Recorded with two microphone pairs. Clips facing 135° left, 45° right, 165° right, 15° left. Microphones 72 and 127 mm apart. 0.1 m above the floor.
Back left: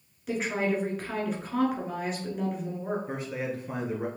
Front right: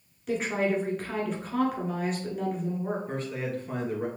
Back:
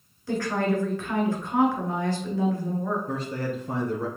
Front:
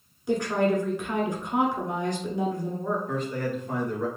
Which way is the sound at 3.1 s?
150° right.